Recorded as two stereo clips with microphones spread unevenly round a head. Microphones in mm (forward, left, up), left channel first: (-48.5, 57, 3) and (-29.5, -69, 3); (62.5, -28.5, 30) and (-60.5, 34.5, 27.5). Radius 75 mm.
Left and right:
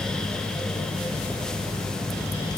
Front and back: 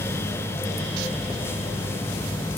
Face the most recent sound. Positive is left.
No sound to turn to.